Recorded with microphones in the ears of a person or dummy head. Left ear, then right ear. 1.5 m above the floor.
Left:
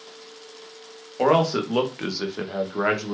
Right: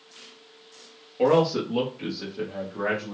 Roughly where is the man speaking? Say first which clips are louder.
Left 1 dB; left.